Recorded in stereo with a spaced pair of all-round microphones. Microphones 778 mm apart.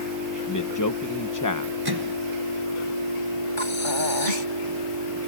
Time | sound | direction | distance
0.5 | a man speaking | 25° left (ahead or behind) | ?
1.9 | a microwave | 30° right (ahead or behind) | ?
3.6 | breathing | 85° left | ?